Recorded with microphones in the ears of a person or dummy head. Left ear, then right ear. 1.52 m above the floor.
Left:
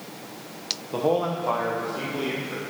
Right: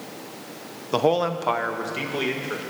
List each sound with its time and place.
0.9 s a man speaking: 55° right (ahead or behind), 0.6 m; by 2.6 s 50° right (ahead or behind), 1.9 m